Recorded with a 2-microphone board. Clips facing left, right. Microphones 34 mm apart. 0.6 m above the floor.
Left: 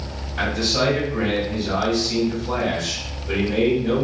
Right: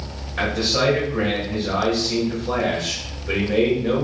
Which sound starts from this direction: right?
A man speaking, at 0.4 s.